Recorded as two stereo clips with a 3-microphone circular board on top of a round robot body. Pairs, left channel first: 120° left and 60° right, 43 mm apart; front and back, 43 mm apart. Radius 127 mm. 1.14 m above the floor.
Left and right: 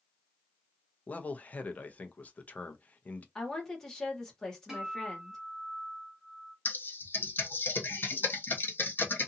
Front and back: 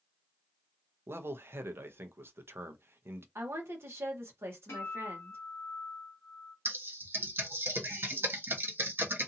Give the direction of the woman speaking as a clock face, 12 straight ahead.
5 o'clock.